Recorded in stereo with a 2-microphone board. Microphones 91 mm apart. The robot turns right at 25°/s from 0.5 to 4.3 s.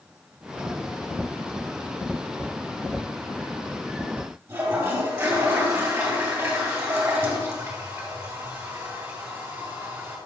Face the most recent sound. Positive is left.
turn(degrees=-25)  # may be behind; listen again after turning